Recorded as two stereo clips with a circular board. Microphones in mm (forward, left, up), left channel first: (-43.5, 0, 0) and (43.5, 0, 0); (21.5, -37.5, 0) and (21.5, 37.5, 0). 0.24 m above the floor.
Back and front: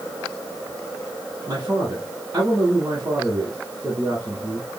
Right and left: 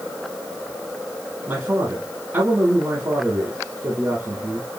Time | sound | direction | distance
1.5 | a man speaking | 50° left | 2 m